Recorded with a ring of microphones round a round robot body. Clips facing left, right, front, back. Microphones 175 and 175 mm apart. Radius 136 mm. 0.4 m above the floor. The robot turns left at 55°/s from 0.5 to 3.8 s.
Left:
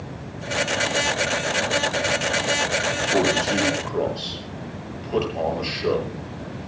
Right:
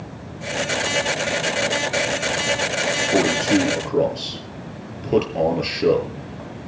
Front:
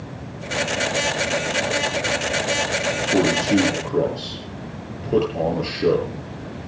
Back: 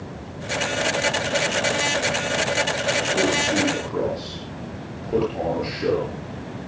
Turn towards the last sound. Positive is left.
turn(degrees=-70)